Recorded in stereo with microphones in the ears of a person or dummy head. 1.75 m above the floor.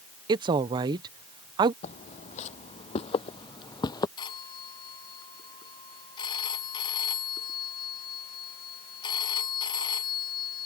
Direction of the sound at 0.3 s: 25° right (ahead or behind).